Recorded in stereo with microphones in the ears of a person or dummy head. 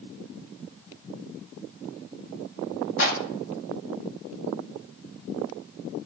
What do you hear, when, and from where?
3.0 s a clap: 65° left (ahead or behind), 2 m